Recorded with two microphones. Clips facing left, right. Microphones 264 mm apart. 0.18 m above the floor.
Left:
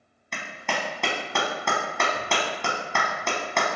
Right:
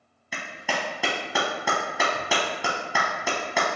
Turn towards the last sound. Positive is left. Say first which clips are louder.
# even
turn(degrees=-5)  # may be behind; listen again after turning